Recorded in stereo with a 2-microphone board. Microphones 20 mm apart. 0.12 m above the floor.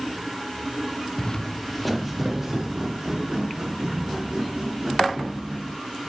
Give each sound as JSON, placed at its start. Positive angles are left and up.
{"t": 1.2, "sound": "footsteps", "side_deg": 50, "distance_m": 0.6}